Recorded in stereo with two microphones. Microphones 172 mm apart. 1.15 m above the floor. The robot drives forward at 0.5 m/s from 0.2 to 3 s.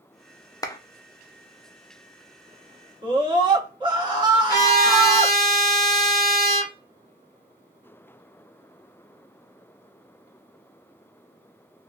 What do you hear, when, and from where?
0.6 s a clap: 20° left (ahead or behind), 0.5 m
3.0 s a scream: 25° right (ahead or behind), 1.4 m
4.5 s a trumpet: 20° left (ahead or behind), 0.9 m